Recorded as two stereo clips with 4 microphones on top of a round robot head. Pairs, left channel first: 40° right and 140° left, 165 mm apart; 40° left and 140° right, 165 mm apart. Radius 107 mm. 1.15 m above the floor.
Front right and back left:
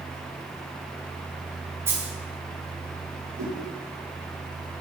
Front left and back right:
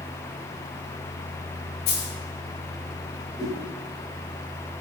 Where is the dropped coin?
65° left, 3.5 m.